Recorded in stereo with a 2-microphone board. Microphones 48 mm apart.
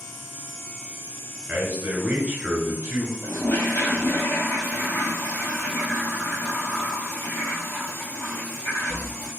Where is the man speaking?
20° right (ahead or behind), 1.2 m.